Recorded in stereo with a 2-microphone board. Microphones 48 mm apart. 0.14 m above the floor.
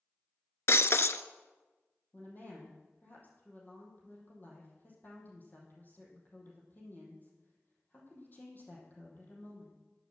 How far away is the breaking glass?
About 0.7 m.